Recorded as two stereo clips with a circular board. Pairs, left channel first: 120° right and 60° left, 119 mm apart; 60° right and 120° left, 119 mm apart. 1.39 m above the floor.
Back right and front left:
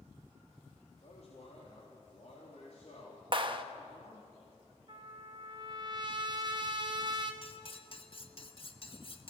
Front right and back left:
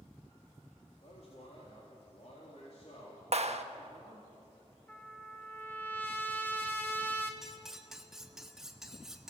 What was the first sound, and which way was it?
A man speaking, 90° right.